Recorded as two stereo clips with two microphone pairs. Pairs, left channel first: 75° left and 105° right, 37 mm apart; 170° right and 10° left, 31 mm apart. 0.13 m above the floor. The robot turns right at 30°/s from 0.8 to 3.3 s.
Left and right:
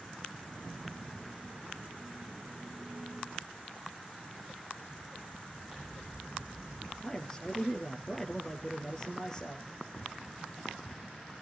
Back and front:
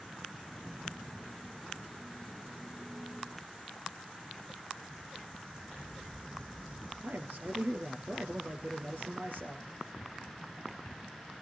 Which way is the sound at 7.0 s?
Straight ahead.